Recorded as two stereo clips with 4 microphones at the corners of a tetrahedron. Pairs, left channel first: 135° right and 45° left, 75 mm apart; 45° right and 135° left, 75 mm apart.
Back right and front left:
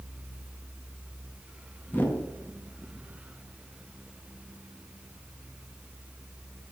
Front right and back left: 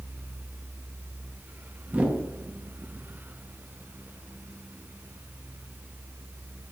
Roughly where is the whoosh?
Behind.